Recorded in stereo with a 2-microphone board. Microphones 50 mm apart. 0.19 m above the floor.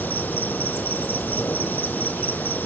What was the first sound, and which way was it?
An insect, 40° left (ahead or behind).